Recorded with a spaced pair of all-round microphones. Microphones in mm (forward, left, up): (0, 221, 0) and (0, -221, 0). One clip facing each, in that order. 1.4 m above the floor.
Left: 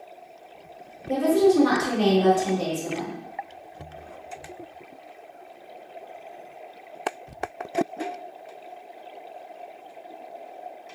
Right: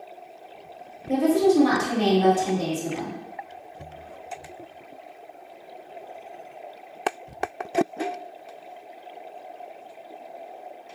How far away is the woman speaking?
About 1.3 m.